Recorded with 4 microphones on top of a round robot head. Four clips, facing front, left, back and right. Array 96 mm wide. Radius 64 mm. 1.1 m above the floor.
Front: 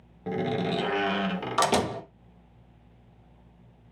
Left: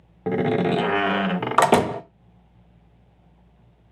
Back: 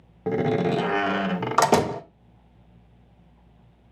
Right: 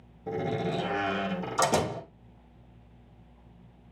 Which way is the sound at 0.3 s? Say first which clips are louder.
Left 9 dB, back 6 dB; 115° left.